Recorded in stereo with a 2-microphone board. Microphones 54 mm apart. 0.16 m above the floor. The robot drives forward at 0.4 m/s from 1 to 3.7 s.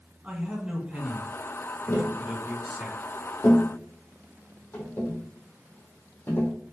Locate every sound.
0.2 s a man speaking: 25° right (ahead or behind), 1.6 m; by 2.9 s 20° right (ahead or behind), 1.6 m
1.9 s tapping: 50° left (ahead or behind), 1.7 m; by 6.5 s 35° left (ahead or behind), 2 m